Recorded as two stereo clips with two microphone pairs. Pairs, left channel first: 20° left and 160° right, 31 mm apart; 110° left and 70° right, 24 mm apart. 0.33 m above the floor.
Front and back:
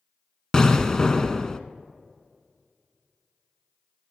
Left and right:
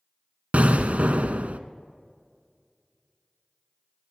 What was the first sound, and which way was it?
An explosion, 50° right.